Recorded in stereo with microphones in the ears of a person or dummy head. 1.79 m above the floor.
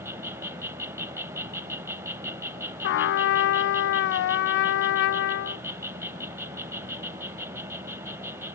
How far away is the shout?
I don't hear a shout.